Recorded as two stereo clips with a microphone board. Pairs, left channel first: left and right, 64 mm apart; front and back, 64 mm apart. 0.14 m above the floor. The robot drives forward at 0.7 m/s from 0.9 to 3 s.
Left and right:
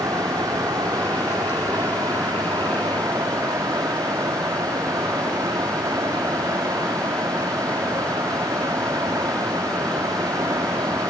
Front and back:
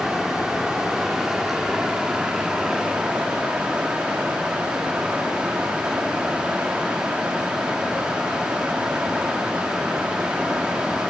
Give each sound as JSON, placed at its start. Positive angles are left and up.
{"t": 0.0, "sound": "running water", "azimuth_deg": -95, "distance_m": 8.0}